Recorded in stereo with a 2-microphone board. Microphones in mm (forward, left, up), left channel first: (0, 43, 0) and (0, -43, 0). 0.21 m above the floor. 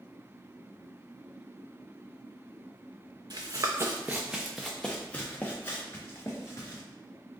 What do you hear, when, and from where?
3.3 s running footsteps: 55° right (ahead or behind), 0.8 m; by 6.8 s 35° left (ahead or behind), 2 m